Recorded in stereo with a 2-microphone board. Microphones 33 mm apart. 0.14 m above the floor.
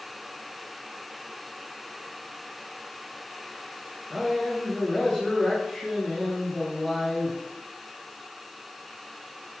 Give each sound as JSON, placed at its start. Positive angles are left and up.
{"t": 4.1, "sound": "a man speaking", "side_deg": 15, "distance_m": 1.9}